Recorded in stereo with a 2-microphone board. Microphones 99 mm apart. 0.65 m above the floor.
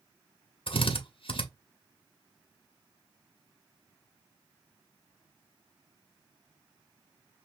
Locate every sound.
0.7 s a drill: 60° left (ahead or behind), 1.0 m